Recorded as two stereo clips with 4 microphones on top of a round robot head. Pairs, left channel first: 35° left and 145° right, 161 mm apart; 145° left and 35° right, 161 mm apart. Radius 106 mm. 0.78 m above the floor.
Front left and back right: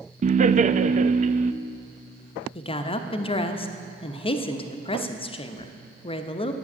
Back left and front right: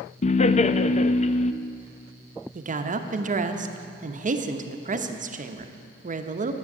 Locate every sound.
0.2 s laughter: 175° right, 0.5 m
2.5 s a woman speaking: 15° right, 0.9 m